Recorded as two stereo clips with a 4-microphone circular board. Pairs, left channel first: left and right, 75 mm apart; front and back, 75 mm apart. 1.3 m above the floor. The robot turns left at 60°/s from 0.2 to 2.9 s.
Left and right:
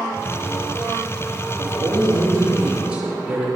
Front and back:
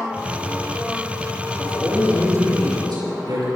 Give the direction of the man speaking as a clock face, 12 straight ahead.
3 o'clock.